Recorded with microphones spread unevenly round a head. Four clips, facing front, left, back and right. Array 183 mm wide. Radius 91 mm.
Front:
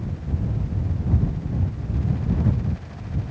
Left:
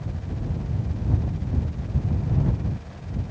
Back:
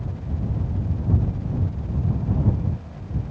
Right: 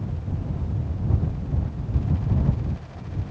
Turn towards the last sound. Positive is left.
No sound to turn to.